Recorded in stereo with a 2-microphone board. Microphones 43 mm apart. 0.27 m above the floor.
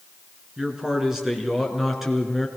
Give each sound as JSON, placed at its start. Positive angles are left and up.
{"t": 0.6, "sound": "a man speaking", "side_deg": -15, "distance_m": 4.0}